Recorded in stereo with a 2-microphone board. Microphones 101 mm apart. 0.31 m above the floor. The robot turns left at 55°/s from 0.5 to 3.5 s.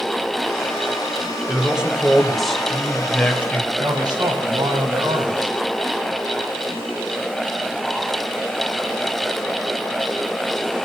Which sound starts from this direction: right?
A man speaking, at 3.8 s.